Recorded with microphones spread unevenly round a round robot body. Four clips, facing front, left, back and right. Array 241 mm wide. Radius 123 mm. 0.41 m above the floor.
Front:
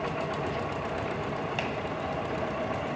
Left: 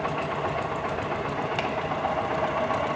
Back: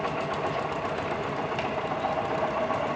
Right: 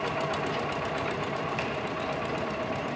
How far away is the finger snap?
About 1.8 m.